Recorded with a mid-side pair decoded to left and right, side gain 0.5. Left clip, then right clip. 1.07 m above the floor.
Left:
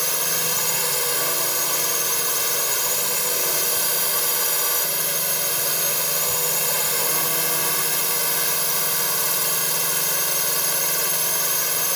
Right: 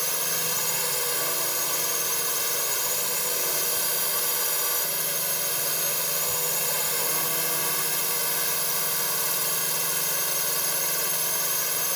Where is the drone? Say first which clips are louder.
Left 4 dB; 25° left.